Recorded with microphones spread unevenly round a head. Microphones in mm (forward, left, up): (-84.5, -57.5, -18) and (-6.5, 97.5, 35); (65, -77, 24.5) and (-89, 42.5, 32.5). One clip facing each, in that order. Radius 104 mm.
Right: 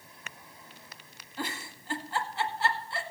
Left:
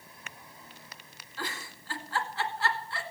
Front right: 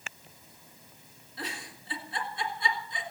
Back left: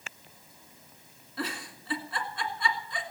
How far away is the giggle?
About 1.9 m.